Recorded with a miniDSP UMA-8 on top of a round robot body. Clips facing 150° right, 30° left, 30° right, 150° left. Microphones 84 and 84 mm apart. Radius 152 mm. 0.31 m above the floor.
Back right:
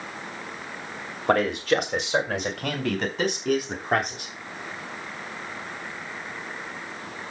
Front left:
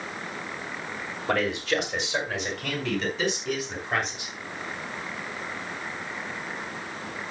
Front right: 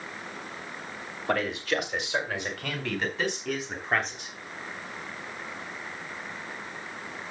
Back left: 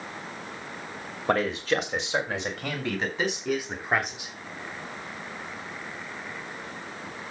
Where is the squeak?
I don't hear a squeak.